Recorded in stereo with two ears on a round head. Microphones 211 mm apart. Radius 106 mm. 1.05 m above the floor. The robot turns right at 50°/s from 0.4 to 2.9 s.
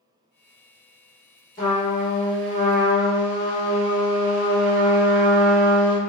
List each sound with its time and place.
1.6 s a trumpet: 165° left, 1.0 m; by 6.0 s 130° right, 1.0 m